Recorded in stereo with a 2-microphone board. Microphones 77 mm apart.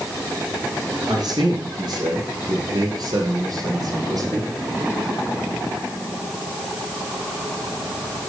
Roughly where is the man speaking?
Right.